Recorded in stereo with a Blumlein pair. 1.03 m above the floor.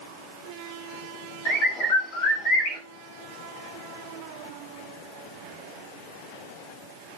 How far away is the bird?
About 3 m.